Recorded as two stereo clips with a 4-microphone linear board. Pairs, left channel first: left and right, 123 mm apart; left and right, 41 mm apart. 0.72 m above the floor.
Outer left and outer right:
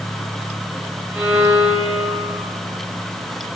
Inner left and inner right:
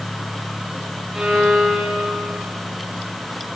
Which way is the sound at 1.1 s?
15° right (ahead or behind).